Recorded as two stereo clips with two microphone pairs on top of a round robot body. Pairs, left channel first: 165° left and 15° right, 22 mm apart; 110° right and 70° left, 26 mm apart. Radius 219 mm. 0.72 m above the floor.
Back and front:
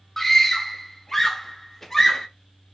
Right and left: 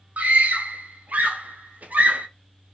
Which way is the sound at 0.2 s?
85° left.